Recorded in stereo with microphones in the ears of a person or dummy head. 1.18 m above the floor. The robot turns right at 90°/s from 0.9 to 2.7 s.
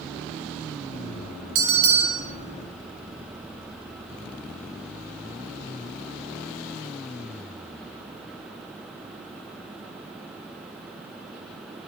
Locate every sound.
1.6 s a bell: 85° right, 2.5 m; by 2.2 s 25° right, 2.5 m